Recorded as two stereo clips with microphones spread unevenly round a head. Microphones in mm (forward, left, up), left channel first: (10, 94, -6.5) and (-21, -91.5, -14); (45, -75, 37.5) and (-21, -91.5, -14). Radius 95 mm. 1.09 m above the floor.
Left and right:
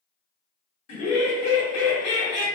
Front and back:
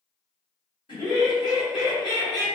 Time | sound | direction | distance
0.9 | laughter | 80° left | 1.6 m